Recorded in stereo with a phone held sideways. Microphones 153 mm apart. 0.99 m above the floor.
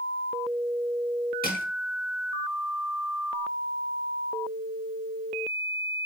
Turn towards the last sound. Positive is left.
turn(degrees=80)